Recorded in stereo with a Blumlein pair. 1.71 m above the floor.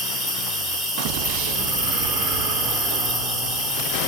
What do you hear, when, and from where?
0.0 s an insect: 15° right, 1.1 m